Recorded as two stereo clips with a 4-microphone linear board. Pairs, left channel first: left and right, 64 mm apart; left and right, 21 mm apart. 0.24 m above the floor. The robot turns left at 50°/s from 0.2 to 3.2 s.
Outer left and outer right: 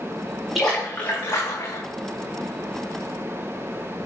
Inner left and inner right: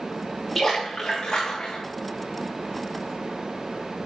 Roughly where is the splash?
Behind.